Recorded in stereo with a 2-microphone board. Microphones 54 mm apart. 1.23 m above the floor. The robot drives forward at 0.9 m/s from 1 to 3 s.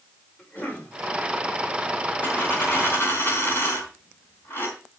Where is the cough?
30° left (ahead or behind), 5.5 m.